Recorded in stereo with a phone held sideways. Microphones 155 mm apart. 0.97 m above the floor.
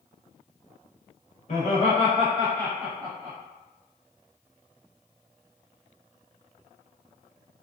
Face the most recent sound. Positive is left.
turn(degrees=-45)  # may be behind; listen again after turning